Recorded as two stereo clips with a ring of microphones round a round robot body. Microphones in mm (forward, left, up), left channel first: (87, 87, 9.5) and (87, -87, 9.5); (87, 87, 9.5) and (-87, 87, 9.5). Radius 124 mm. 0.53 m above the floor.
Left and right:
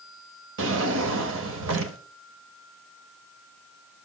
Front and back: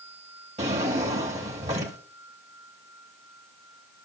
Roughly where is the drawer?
Behind right.